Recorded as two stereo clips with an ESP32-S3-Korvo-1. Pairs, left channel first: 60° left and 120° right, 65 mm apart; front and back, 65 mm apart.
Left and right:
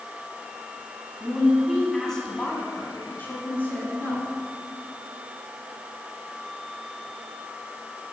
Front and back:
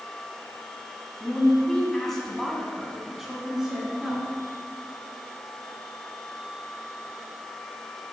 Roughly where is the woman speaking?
Ahead right.